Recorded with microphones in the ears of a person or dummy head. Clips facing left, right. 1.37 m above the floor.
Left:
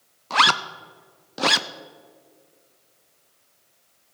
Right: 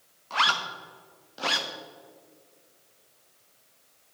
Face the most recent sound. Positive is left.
turn(degrees=65)  # may be behind; listen again after turning